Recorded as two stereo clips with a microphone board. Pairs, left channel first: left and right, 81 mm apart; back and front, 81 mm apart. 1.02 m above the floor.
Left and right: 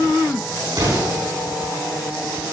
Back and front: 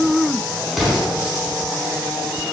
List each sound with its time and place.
0.7 s an explosion: 90° right, 5 m